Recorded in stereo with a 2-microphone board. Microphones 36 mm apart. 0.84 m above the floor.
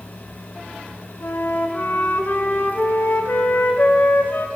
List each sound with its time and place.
1.2 s a flute: 60° left (ahead or behind), 0.8 m